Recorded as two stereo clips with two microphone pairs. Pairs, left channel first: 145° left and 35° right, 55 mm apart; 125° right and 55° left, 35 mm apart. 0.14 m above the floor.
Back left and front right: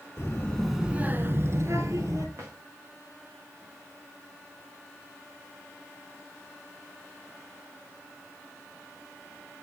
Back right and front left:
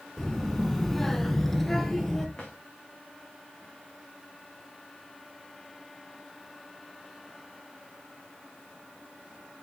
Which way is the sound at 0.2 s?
145° left.